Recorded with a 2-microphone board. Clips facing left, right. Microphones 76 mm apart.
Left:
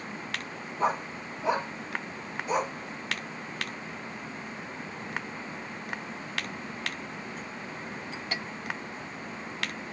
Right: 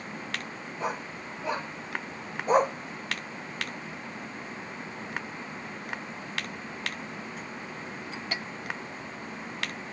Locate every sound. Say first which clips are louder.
0.8 s a dog barking: left 5 dB; 40° left (ahead or behind), 2 m; by 2.8 s 55° right (ahead or behind), 1.0 m